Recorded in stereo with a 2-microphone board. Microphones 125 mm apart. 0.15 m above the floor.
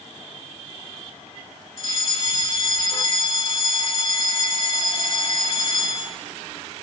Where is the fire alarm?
45° left (ahead or behind), 3.5 m.